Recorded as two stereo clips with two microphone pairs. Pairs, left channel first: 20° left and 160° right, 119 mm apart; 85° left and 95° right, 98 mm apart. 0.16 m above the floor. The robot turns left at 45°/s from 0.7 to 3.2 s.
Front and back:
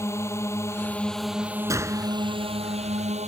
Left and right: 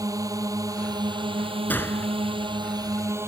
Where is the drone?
45° right; by 3.3 s 155° right.